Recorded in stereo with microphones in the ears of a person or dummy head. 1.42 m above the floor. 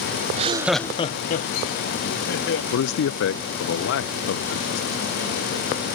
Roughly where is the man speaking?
Left.